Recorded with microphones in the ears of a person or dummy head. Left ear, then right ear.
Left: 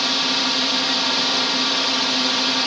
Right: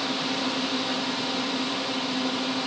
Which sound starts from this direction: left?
A drone, at 0.0 s.